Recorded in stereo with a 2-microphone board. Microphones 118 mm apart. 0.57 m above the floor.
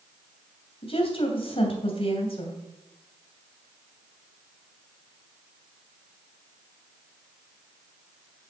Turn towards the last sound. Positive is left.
turn(degrees=50)  # may be behind; listen again after turning